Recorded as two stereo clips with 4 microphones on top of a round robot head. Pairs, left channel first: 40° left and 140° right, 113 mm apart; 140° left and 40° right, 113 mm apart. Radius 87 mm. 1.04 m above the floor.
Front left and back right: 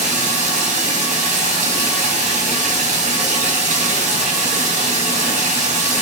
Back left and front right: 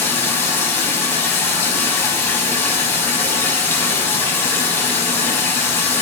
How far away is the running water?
About 5 m.